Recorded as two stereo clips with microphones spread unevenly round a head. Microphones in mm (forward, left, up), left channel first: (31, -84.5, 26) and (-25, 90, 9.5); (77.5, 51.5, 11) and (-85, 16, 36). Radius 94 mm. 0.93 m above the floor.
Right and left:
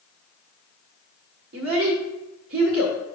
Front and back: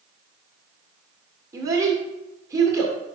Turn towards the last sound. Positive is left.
turn(degrees=120)